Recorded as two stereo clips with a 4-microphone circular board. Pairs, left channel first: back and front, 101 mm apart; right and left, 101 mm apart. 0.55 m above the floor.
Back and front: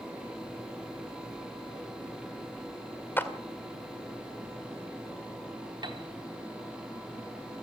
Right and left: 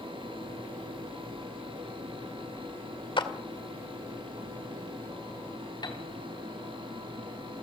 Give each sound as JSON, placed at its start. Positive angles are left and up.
{"t": 3.2, "sound": "a clap", "azimuth_deg": -115, "distance_m": 1.9}
{"t": 5.8, "sound": "a piano", "azimuth_deg": -45, "distance_m": 2.5}